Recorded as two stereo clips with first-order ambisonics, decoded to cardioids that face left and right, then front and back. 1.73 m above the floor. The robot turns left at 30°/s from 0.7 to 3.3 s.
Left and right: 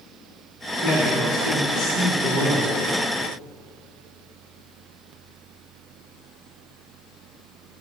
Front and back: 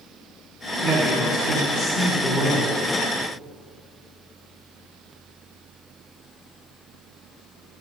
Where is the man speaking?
20° right, 1.3 m; by 2.7 s 80° right, 1.3 m.